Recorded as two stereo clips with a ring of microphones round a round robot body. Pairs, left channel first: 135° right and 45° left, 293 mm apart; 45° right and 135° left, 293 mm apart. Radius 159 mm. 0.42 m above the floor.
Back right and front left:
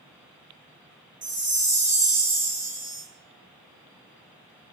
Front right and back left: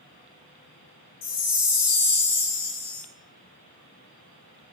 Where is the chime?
20° right, 0.9 m.